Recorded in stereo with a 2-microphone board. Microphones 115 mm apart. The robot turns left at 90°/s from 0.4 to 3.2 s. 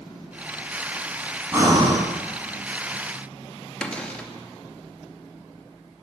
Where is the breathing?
25° right, 2 m; by 2.0 s 70° right, 2 m.